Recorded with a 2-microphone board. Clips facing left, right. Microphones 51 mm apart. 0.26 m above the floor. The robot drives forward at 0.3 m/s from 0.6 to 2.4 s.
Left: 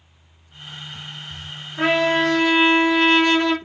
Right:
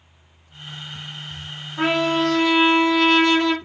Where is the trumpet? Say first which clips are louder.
Left 2 dB; 5° right (ahead or behind), 2.5 m.